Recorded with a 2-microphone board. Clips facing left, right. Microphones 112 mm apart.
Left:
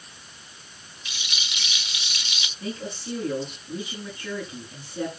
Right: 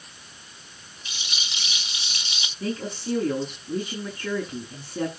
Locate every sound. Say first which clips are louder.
1.1 s a rattle: even; 30° right (ahead or behind), 0.9 m
2.6 s a woman speaking: right 4 dB; 50° right (ahead or behind), 8 m